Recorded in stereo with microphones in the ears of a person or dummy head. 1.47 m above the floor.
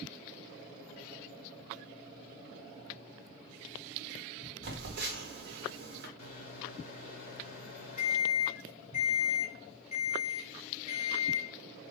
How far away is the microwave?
About 0.8 m.